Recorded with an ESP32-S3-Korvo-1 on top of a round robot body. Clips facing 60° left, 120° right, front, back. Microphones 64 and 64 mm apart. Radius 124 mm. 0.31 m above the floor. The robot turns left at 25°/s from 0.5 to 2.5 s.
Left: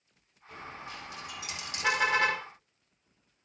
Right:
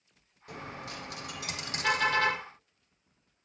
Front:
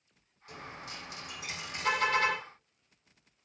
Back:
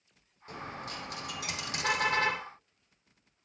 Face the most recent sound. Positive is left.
turn(degrees=120)